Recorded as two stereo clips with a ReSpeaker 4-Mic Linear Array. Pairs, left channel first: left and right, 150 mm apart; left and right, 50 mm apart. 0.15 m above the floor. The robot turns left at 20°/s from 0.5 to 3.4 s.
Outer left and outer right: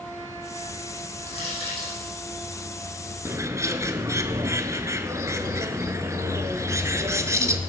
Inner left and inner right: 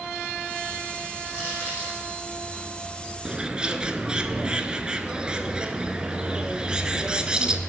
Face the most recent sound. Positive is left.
turn(degrees=-20)  # may be behind; listen again after turning